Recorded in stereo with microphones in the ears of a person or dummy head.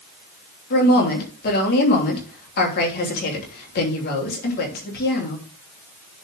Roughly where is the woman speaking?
Left.